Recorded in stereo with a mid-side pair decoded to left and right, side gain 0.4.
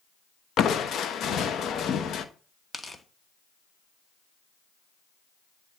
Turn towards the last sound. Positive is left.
turn(degrees=20)